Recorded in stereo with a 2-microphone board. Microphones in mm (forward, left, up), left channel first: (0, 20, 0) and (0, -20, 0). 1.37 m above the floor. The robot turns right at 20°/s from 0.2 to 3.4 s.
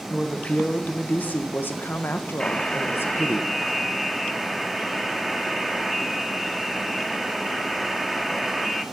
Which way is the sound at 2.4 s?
20° left (ahead or behind).